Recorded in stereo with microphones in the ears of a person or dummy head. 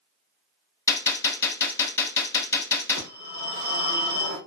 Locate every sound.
0.9 s a gunshot: 20° left (ahead or behind), 0.7 m
3.0 s a phone ringing: 75° right (ahead or behind), 1.9 m